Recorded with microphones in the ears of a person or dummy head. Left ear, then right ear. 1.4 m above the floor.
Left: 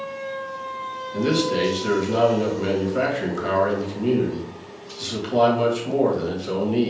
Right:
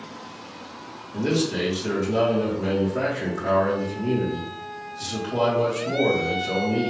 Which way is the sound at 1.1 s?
20° left (ahead or behind).